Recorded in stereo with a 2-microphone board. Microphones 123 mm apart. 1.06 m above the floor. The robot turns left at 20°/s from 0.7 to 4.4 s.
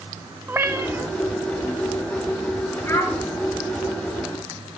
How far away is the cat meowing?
About 0.8 m.